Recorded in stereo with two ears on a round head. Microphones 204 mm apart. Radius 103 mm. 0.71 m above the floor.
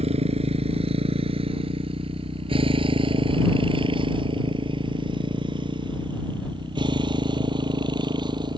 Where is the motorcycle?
30° right (ahead or behind); by 8.6 s 20° right (ahead or behind).